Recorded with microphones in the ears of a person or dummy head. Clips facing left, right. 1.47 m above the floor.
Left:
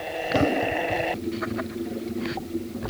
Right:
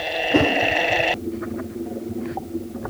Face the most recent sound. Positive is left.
turn(degrees=-70)  # may be behind; listen again after turning